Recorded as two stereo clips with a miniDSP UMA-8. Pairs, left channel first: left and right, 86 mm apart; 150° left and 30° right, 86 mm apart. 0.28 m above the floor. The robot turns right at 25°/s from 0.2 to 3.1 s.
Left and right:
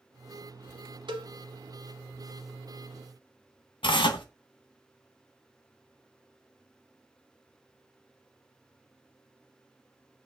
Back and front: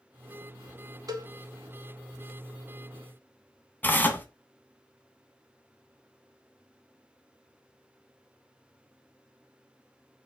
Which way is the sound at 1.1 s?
75° right.